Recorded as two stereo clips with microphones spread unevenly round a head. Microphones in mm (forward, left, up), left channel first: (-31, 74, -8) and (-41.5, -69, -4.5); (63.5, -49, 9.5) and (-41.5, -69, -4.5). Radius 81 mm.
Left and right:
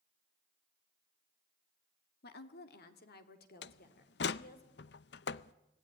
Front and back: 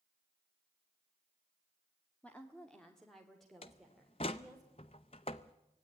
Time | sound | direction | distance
2.2 | a woman speaking | 95° left | 1.7 m
3.6 | a door slam | 70° left | 0.5 m